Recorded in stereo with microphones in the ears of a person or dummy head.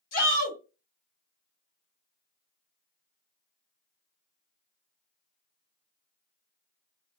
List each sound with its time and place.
0.1 s a shout: 45° left (ahead or behind), 1.7 m